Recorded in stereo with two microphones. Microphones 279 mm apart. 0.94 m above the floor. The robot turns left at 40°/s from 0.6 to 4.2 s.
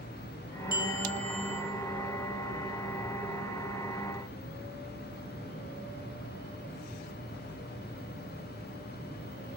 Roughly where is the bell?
Ahead right.